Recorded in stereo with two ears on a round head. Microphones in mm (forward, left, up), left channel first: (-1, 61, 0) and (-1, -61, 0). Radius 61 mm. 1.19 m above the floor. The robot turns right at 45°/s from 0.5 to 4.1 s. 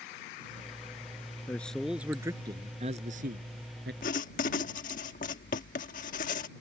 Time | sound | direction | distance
1.5 | a man speaking | 165° left | ?
4.0 | writing | 70° left (ahead or behind) | ?